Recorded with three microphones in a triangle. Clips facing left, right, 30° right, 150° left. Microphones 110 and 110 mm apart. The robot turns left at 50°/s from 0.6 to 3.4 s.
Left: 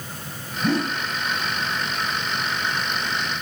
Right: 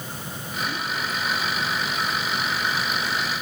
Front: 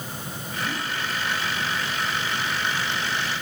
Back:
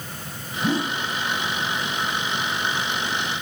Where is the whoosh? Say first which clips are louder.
Left 8 dB, back 8 dB; 105° left; by 1.0 s 85° left.